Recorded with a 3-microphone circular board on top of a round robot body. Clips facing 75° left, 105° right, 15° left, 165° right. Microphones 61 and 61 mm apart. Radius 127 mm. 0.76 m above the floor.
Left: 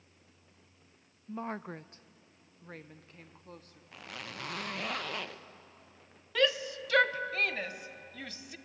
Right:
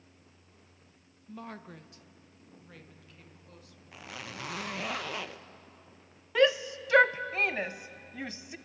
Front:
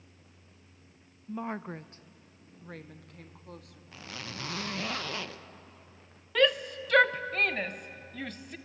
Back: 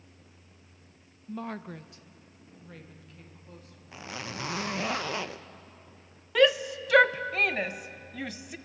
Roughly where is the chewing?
I don't hear chewing.